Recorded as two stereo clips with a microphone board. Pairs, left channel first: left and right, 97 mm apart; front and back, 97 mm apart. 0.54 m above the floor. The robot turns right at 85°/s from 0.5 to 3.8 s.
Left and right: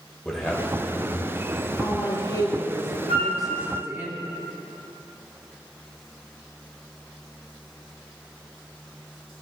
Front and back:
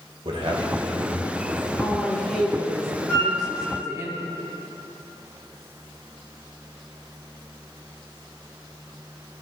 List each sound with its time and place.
0.2 s a man speaking: 175° left, 1.9 m; by 1.7 s 85° right, 1.9 m
1.8 s a woman speaking: 45° left, 0.8 m; by 4.1 s 145° right, 0.8 m
3.1 s a flute: 80° left, 3 m; by 3.4 s 105° left, 3 m